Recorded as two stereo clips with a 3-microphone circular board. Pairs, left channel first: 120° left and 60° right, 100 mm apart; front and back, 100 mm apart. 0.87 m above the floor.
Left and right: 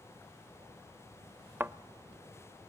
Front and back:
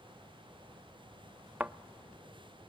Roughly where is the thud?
Behind right.